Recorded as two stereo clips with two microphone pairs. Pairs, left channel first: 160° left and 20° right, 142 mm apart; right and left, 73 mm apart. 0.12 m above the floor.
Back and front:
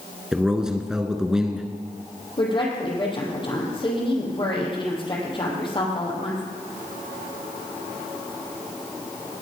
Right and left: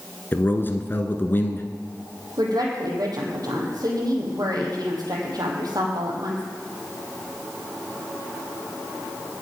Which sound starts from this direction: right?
A man speaking, at 0.3 s.